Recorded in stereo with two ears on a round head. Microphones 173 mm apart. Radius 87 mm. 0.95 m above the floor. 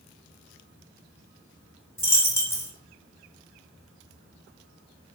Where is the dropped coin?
15° left (ahead or behind), 0.9 m.